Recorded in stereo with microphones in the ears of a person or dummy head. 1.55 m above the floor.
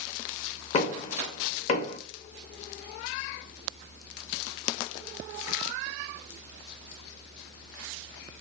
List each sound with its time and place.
0.7 s knocking: 40° left (ahead or behind), 0.5 m